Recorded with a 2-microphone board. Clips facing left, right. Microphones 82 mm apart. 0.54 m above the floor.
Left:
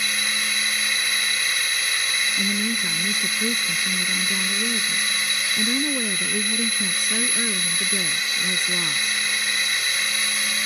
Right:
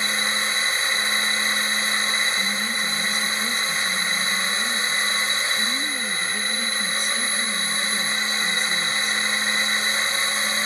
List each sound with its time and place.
0.0 s a drone: 30° right (ahead or behind)
2.4 s a woman speaking: 55° left (ahead or behind)